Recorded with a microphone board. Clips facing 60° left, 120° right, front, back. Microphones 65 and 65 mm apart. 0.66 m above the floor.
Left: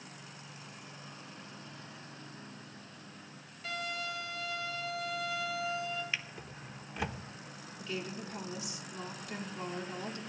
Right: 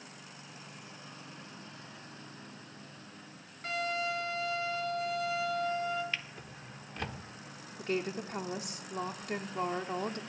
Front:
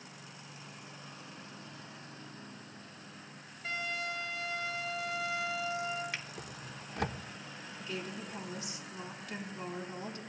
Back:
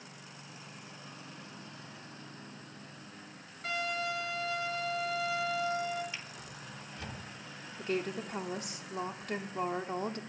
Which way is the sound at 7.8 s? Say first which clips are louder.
Right 6 dB, back 7 dB; 150° right.